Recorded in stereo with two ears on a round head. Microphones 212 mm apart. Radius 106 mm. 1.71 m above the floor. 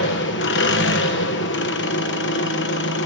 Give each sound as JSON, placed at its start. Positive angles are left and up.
{"t": 0.0, "sound": "an engine running", "side_deg": 50, "distance_m": 1.1}